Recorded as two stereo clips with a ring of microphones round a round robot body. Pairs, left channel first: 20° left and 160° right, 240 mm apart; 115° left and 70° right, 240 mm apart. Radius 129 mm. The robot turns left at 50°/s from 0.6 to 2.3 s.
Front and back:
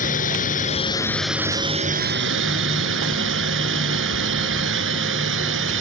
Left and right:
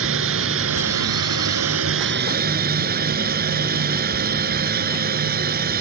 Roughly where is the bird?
I don't hear a bird.